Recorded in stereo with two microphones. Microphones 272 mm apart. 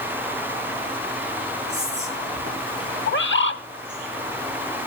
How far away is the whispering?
About 6 m.